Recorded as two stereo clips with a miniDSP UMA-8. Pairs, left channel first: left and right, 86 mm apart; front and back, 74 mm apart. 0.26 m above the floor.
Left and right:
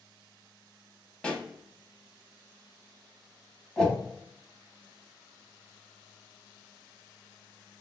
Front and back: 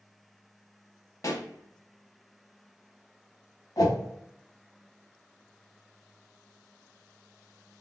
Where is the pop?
15° left, 0.6 m.